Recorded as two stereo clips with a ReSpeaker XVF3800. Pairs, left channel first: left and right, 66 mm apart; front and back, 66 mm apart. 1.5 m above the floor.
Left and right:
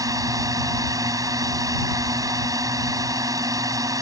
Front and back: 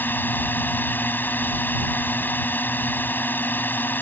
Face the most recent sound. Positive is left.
turn(degrees=-60)